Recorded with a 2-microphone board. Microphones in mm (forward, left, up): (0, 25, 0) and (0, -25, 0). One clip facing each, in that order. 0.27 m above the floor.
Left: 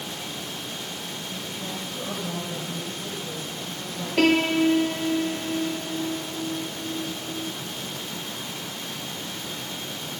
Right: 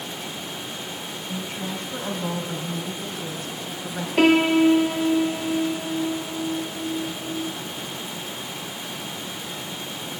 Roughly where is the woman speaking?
Right.